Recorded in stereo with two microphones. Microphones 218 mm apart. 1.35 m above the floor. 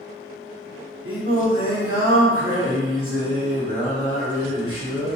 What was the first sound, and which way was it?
Singing, 80° right.